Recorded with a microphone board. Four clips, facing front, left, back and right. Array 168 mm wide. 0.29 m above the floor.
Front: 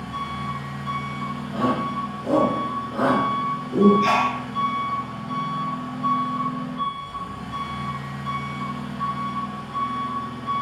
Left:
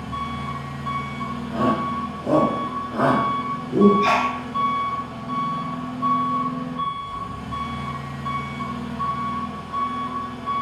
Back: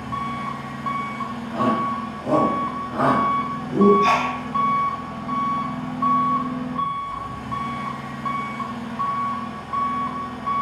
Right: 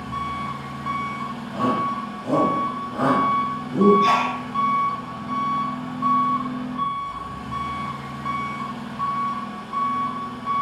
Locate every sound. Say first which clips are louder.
0.0 s an engine running: right 1 dB, back 3 dB; 165° right, 1.0 m
1.5 s a shout: left 1 dB, back 2 dB; 165° left, 1.9 m
4.0 s a sneeze: right 1 dB, back 1 dB; 90° left, 1.7 m